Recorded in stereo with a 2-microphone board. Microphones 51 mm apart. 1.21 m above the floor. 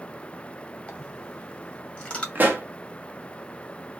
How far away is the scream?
I don't hear a scream.